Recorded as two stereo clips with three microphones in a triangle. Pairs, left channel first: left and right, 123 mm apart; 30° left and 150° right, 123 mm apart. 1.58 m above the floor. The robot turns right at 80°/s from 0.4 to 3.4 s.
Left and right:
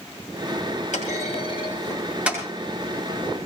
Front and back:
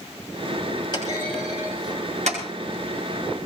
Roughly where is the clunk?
Left.